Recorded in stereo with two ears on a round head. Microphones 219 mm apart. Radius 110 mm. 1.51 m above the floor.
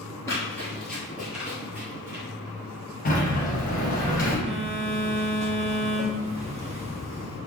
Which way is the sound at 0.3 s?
10° left (ahead or behind).